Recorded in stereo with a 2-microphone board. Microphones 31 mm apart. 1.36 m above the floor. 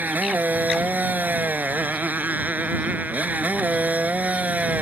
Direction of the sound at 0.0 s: 80° right.